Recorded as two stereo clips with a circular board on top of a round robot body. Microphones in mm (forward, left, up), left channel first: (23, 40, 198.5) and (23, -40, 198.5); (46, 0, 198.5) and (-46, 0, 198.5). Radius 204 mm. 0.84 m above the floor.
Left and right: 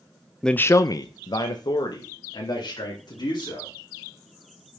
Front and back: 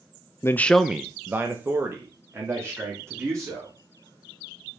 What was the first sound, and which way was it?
A man speaking, 10° left.